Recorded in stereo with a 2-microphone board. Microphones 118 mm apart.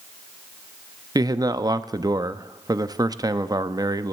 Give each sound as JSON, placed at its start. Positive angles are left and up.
{"t": 1.1, "sound": "a man speaking", "side_deg": -35, "distance_m": 0.5}